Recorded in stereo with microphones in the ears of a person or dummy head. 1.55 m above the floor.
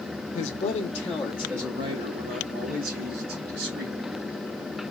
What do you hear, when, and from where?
0.3 s a man speaking: 40° left (ahead or behind), 1.0 m; by 4.0 s 60° right (ahead or behind), 2 m